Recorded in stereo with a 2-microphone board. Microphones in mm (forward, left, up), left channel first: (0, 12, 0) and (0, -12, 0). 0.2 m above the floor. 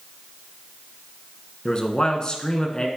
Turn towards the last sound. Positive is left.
turn(degrees=40)  # may be behind; listen again after turning